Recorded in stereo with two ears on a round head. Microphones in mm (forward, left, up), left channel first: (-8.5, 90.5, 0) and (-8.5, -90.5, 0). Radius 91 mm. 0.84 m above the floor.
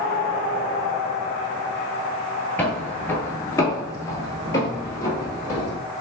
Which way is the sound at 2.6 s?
5° left (ahead or behind).